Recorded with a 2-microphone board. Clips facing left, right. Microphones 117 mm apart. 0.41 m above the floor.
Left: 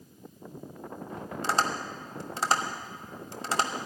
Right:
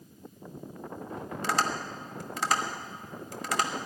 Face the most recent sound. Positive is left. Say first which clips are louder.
# left 1 dB
turn(degrees=30)  # may be behind; listen again after turning